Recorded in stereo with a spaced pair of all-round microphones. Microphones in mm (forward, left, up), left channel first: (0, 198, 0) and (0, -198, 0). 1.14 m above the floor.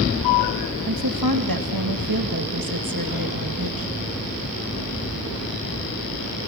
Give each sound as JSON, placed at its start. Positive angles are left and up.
{"t": 0.8, "sound": "a woman speaking", "side_deg": -65, "distance_m": 1.8}